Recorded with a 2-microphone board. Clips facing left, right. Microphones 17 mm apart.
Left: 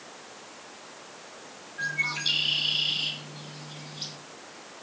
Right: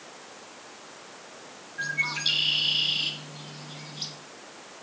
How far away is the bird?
About 1.8 m.